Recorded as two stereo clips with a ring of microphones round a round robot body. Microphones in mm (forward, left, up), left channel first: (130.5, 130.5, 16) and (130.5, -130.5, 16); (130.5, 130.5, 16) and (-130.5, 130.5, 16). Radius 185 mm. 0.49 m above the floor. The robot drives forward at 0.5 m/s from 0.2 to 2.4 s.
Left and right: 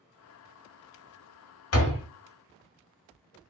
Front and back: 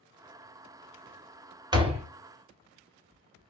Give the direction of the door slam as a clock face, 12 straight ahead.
8 o'clock.